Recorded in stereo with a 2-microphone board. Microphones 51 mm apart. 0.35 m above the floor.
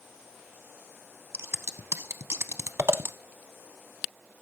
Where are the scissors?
60° right (ahead or behind), 0.6 m.